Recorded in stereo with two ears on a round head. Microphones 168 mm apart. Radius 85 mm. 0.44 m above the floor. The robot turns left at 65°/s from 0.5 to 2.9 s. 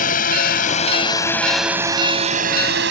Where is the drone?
45° left (ahead or behind); by 2.9 s 60° right (ahead or behind).